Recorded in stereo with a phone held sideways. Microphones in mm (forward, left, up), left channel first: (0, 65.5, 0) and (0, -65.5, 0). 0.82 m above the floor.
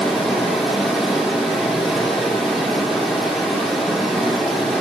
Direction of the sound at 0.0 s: Centre (ahead or behind).